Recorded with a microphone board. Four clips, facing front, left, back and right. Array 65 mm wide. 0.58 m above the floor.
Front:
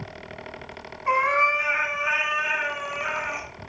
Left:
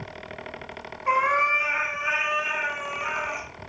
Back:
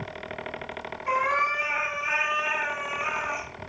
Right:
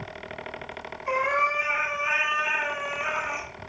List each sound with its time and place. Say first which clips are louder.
1.1 s a cat meowing: left 3 dB, front 4 dB; 40° left, 0.9 m; by 3.5 s 10° right, 1.8 m